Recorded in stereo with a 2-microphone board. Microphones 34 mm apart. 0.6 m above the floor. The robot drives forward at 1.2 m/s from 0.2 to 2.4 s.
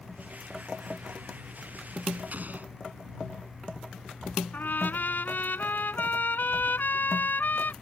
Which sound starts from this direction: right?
An explosion, at 2.3 s.